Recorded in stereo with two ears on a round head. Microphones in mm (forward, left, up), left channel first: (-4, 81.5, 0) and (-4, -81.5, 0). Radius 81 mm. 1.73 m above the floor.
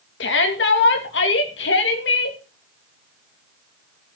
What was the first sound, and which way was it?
A shout, 70° left (ahead or behind).